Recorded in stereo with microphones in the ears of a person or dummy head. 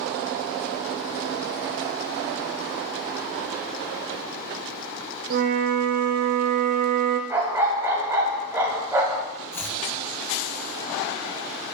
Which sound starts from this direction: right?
A flute, at 5.3 s.